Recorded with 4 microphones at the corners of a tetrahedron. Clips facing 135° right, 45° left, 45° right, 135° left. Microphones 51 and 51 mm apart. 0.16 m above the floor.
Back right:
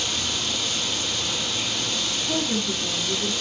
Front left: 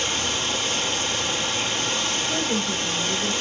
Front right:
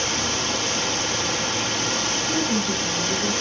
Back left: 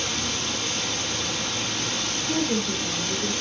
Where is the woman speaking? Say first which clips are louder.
Front left 1 dB, even; 130° right, 9 m.